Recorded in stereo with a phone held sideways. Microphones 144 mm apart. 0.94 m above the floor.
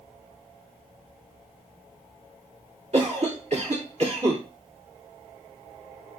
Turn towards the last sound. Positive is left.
turn(degrees=-50)  # may be behind; listen again after turning